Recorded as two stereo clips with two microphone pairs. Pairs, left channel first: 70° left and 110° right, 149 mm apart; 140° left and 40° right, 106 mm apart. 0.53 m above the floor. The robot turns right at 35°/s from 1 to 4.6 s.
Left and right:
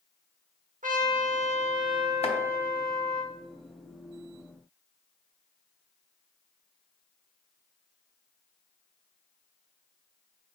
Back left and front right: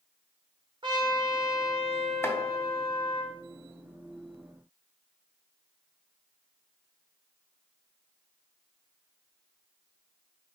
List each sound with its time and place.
0.8 s a trumpet: 85° right, 0.7 m; by 3.2 s 5° right, 0.7 m
2.2 s chopping: 80° left, 0.5 m; by 2.4 s 85° left, 0.5 m